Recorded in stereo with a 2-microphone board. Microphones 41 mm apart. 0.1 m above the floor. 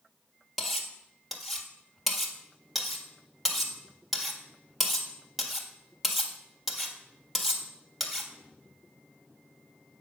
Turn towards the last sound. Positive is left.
turn(degrees=-5)  # may be behind; listen again after turning